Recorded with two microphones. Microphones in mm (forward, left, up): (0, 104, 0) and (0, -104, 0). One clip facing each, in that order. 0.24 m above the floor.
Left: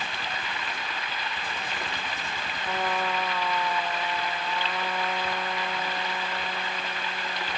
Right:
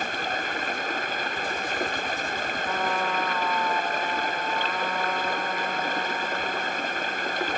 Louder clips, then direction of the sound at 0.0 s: Right 6 dB; 50° right (ahead or behind).